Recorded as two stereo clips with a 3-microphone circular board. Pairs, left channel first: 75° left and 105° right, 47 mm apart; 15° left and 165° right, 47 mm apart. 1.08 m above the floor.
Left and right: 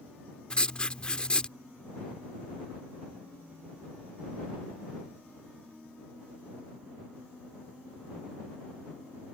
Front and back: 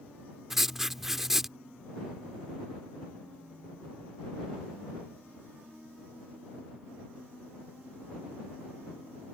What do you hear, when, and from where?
0.5 s writing: 120° left